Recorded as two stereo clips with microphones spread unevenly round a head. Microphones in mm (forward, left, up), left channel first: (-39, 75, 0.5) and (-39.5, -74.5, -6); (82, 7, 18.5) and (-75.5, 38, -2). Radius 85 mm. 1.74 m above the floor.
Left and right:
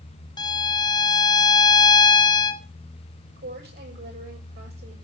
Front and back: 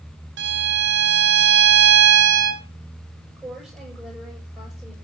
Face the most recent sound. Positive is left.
turn(degrees=-100)